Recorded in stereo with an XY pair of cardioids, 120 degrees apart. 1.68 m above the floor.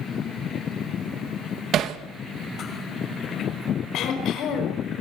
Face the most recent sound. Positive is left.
turn(degrees=65)